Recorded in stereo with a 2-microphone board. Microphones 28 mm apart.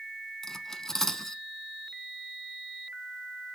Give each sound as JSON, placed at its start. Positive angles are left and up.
{"t": 0.4, "sound": "cutlery clinking", "side_deg": 15, "distance_m": 0.6}